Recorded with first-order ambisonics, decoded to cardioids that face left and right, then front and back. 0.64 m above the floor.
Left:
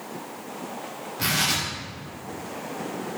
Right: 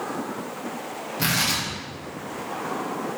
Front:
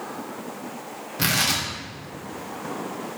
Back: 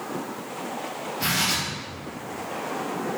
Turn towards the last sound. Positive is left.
turn(degrees=-15)